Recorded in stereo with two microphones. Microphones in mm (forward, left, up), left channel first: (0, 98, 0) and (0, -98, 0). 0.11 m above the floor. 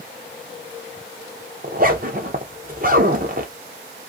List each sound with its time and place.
1.6 s a zipper: 50° right (ahead or behind), 0.6 m